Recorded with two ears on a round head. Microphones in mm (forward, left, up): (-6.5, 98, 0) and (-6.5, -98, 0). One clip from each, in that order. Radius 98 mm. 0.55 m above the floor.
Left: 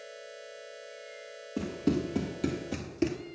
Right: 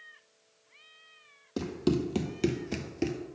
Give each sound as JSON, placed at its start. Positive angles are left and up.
{"t": 1.6, "sound": "running footsteps", "side_deg": -65, "distance_m": 1.4}